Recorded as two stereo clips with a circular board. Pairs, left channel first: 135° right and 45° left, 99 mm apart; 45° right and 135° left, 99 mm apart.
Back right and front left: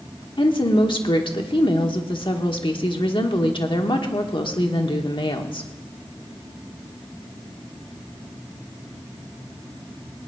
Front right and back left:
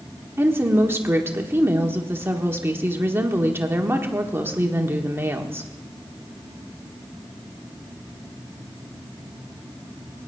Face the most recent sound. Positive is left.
turn(degrees=-160)